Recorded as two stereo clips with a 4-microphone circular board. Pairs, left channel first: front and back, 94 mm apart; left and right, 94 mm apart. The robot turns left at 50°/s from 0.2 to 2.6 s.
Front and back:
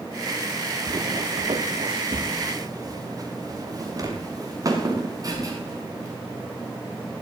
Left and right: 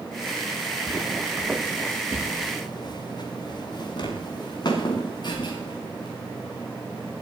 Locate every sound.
0.9 s footsteps: 140° right, 0.9 m; by 7.2 s 130° left, 6 m